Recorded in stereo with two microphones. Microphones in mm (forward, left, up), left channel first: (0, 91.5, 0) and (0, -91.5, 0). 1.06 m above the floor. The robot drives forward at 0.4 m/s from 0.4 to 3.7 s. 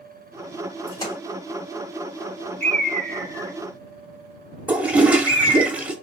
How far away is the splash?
About 3 m.